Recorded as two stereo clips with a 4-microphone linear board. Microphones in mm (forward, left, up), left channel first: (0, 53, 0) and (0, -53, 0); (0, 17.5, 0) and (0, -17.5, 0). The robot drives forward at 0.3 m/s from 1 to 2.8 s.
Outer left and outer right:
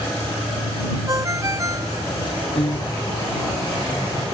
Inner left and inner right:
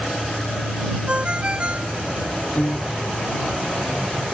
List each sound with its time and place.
1.1 s a ringtone: 30° right (ahead or behind); by 2.0 s 35° right (ahead or behind)
2.5 s a piano: 60° left (ahead or behind)